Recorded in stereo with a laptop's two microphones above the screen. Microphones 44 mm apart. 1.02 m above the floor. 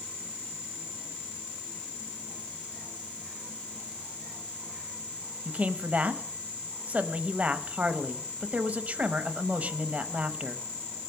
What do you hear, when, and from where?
5.5 s a man speaking: 35° right (ahead or behind), 0.9 m